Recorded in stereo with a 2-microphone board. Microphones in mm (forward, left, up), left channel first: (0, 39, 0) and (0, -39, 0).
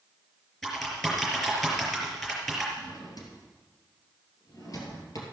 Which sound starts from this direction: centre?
Typing on a keyboard, at 0.6 s.